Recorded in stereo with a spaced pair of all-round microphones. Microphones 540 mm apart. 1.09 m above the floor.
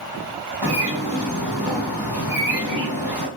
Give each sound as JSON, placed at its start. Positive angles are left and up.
{"t": 0.6, "sound": "a bird", "side_deg": 5, "distance_m": 1.7}